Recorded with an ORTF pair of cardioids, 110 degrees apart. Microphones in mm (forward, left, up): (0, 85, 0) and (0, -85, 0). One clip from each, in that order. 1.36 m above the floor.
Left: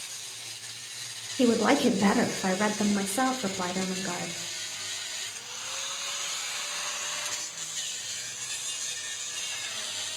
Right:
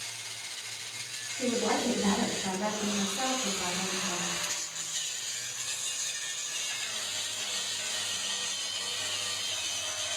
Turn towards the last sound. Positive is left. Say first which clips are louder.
# left 6 dB
turn(degrees=65)